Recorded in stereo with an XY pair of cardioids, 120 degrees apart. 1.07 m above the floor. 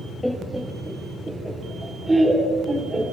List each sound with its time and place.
0.2 s laughter: 10° left, 1.5 m; by 3.0 s 15° right, 4 m